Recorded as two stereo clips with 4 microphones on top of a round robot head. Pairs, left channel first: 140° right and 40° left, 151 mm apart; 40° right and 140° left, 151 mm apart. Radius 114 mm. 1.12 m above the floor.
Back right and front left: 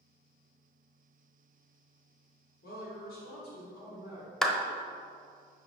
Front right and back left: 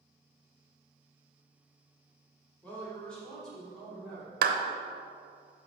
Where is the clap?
135° left, 0.9 m.